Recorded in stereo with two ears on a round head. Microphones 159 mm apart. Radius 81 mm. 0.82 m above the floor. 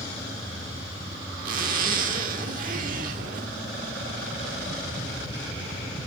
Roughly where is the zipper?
Right.